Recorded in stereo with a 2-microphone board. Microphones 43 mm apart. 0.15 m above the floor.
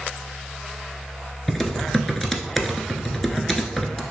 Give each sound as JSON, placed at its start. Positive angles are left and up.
{"t": 1.5, "sound": "typing on a keyboard", "side_deg": 5, "distance_m": 0.6}